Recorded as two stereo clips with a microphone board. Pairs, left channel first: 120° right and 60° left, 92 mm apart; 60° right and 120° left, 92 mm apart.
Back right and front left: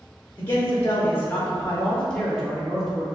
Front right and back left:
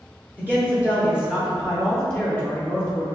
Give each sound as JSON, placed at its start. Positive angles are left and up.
{"t": 0.4, "sound": "a man speaking", "azimuth_deg": -175, "distance_m": 1.3}